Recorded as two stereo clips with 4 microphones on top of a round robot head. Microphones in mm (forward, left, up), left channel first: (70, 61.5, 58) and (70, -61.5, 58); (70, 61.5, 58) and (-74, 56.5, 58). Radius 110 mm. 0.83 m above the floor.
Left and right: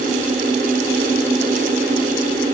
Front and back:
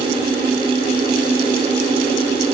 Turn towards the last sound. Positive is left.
No sound to turn to.